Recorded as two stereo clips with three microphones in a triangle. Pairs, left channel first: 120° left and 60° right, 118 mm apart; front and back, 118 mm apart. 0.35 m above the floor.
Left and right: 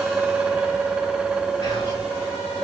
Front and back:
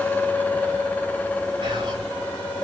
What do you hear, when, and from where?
1.6 s whispering: 155° left, 1.7 m